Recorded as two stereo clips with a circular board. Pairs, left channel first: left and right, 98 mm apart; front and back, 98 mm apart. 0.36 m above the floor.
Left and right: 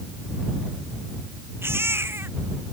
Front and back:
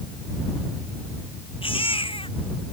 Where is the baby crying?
25° right.